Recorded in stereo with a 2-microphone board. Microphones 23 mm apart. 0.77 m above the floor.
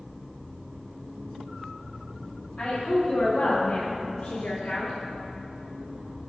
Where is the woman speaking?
35° left (ahead or behind), 1.4 m; by 4.9 s 40° left (ahead or behind), 2 m.